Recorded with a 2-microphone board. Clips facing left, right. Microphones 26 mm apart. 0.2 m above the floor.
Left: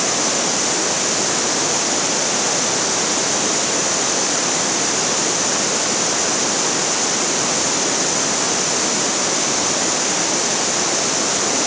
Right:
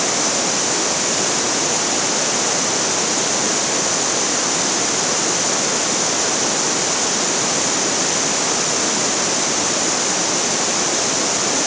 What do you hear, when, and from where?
Only background noise.